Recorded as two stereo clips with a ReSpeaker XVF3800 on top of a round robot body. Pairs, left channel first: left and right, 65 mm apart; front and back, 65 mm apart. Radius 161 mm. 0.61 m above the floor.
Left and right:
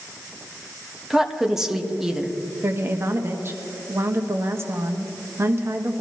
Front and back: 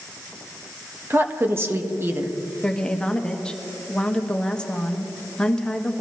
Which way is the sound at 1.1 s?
165° right.